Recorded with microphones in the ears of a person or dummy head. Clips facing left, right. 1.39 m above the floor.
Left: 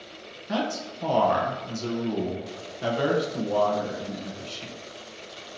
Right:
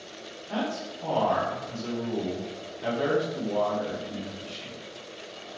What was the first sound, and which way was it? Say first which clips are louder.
A man speaking: left 2 dB; 65° left (ahead or behind).